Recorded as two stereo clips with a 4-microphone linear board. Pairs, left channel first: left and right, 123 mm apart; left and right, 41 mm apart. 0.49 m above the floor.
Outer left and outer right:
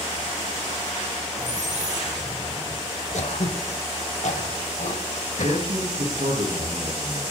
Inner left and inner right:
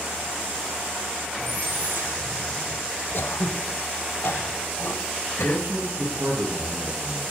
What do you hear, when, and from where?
1.4 s a squeak: 85° right, 7 m
3.1 s throat clearing: 70° left (ahead or behind), 1.1 m
5.4 s a man speaking: 80° right, 9 m